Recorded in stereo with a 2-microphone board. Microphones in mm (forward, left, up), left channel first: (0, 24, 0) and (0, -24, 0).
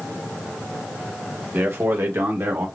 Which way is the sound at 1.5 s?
40° right (ahead or behind).